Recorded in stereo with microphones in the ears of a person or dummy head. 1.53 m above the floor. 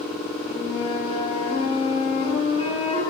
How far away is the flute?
About 8 m.